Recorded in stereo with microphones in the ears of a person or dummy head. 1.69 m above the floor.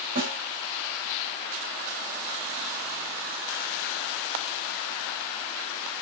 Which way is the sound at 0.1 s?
50° right (ahead or behind).